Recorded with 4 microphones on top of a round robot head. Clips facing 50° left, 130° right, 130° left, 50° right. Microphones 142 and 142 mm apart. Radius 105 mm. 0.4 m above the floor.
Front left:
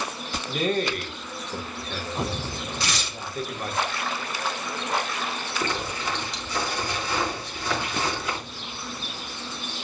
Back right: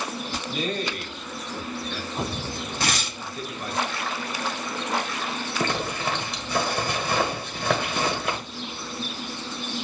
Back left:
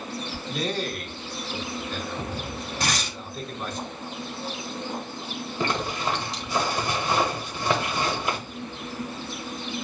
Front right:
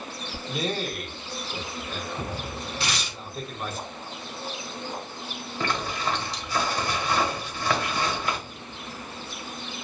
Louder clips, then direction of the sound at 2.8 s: Back right 3 dB, back left 5 dB; 175° right.